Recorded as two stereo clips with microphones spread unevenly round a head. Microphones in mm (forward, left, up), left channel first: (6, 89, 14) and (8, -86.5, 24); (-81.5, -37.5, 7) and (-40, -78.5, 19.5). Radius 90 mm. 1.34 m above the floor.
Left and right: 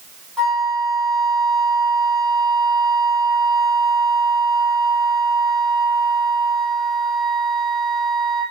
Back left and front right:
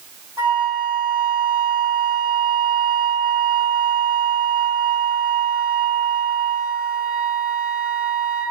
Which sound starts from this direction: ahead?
A flute, at 0.4 s.